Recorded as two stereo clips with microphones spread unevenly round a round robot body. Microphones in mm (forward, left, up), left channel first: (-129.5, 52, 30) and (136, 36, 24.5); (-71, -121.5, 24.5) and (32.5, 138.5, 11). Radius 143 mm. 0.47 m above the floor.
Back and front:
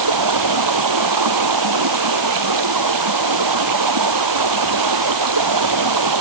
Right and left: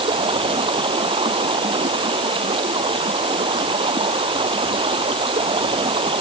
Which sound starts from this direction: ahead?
Running water, at 0.0 s.